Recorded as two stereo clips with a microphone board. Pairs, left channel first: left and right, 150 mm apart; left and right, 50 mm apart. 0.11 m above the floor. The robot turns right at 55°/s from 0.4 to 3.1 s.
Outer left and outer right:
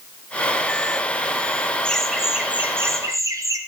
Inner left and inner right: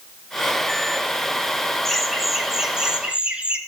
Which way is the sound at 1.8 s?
5° left (ahead or behind).